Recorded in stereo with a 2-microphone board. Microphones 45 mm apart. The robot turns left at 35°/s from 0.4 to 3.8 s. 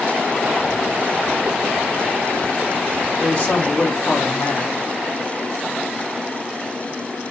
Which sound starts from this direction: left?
A man speaking, at 3.2 s.